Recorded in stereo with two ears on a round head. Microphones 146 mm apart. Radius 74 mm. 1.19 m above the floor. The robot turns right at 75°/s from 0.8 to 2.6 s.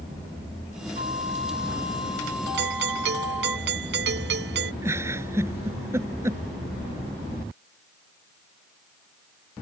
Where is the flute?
65° left; by 3.6 s 170° right.